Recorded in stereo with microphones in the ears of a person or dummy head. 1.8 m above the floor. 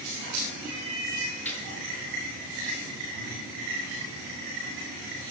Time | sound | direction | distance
1.4 | a gunshot | 10° left (ahead or behind) | 6 m